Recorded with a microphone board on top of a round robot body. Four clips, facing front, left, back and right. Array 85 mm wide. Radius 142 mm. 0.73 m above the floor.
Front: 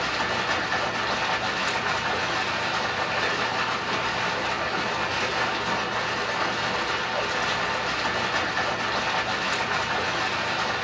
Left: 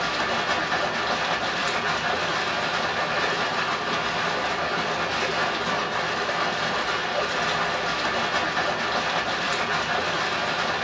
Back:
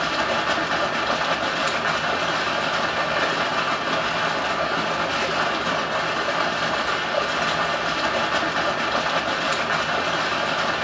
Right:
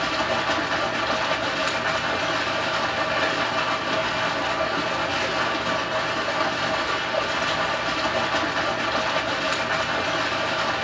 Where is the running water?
175° right, 0.7 m.